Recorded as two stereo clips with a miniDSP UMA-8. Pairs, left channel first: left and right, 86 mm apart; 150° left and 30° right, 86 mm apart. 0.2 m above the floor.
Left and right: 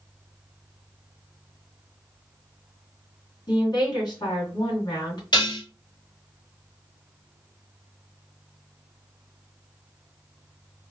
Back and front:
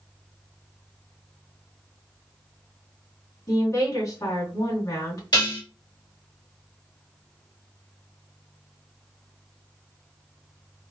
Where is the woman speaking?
110° left, 2.5 m.